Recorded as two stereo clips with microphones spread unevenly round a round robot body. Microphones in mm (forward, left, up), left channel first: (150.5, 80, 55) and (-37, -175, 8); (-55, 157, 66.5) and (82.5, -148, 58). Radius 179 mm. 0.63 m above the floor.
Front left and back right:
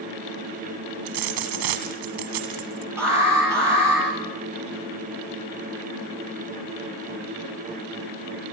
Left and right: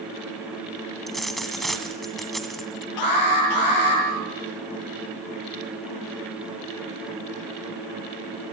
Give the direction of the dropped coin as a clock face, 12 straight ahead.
5 o'clock.